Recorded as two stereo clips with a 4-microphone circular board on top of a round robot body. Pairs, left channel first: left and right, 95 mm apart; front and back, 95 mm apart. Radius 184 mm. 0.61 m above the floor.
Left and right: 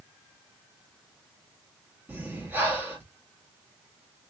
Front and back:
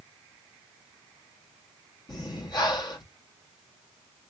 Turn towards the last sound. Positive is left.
turn(degrees=-25)